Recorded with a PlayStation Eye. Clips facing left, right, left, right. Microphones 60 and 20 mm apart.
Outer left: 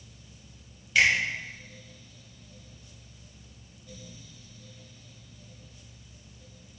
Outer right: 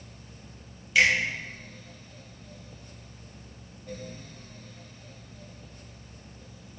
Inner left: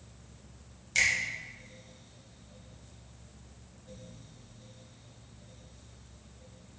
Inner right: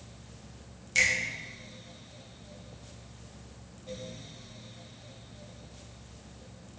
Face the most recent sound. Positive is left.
turn(degrees=-5)  # may be behind; listen again after turning